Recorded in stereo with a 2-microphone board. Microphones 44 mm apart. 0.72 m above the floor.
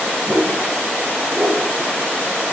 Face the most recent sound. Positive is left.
turn(degrees=-60)  # may be behind; listen again after turning